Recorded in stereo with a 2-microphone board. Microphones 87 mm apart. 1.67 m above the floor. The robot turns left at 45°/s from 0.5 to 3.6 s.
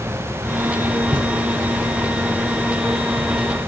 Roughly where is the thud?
Right.